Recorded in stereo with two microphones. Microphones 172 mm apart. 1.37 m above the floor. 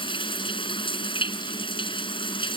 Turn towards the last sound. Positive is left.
turn(degrees=30)  # may be behind; listen again after turning